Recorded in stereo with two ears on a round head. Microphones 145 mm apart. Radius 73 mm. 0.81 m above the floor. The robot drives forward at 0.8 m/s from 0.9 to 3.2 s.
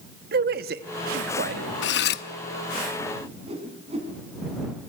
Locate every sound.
0.3 s a man speaking: 65° right (ahead or behind), 1.3 m; by 1.7 s 55° right (ahead or behind), 1.4 m
1.8 s cutlery clinking: 85° left, 0.7 m; by 2.2 s 65° left (ahead or behind), 0.8 m
3.2 s a whoosh: 35° right (ahead or behind), 5.5 m